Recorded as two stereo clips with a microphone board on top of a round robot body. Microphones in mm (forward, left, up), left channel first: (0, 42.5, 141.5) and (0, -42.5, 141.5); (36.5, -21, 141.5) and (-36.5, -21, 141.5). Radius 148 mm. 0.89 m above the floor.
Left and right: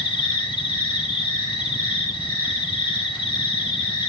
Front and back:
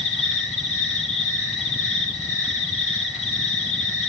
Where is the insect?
100° left, 7 m.